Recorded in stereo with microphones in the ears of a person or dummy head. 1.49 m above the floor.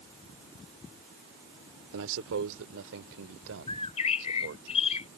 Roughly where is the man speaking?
Right.